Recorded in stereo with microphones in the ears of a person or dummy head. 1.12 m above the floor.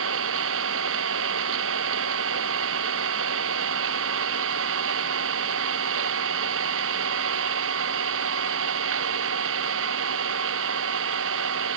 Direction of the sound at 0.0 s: 75° right (ahead or behind).